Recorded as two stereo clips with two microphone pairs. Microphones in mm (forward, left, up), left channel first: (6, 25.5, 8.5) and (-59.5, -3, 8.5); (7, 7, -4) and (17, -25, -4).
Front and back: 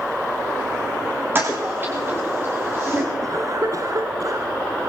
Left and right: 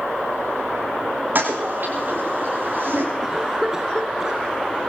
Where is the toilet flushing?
100° right, 9.5 m.